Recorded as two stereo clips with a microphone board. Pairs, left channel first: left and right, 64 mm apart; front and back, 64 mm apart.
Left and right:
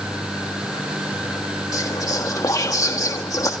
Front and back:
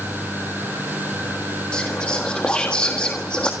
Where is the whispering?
75° left, 1.5 m.